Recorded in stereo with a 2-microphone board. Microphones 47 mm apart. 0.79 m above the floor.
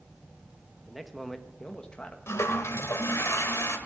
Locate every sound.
0.8 s a man speaking: 10° right (ahead or behind), 1.1 m; by 2.2 s 25° left (ahead or behind), 1.0 m
2.3 s a toilet flushing: 80° left, 1.4 m